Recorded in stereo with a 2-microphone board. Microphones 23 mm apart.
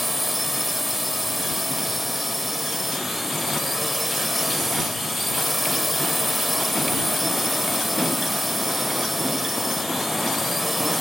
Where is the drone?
5° right (ahead or behind).